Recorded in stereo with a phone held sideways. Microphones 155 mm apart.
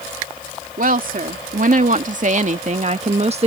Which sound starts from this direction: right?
A woman speaking, at 0.8 s.